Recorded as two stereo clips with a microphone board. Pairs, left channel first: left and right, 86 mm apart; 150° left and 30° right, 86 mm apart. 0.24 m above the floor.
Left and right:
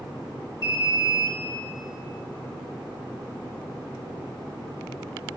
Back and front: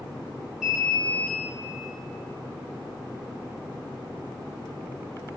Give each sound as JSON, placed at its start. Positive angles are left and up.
{"t": 0.6, "sound": "an alarm", "azimuth_deg": 50, "distance_m": 5.0}